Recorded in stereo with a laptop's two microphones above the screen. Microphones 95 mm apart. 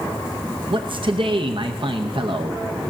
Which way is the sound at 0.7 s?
60° right (ahead or behind).